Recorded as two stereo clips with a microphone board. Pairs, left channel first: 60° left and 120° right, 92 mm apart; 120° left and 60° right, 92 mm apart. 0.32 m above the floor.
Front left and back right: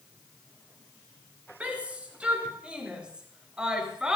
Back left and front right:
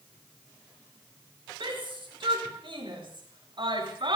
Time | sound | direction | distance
1.6 | a shout | 45° right | 6.5 m